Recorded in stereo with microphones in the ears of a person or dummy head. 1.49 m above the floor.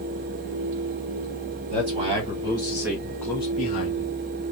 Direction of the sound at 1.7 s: 35° right (ahead or behind).